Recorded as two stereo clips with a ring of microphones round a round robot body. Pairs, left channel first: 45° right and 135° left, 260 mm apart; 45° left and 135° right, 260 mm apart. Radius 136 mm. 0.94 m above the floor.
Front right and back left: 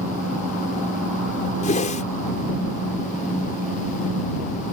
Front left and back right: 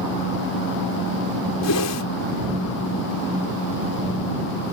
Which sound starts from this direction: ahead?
A whoosh, at 1.6 s.